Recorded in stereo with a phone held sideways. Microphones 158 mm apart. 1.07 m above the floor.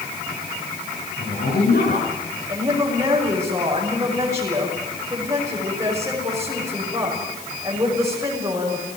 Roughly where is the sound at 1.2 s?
Left.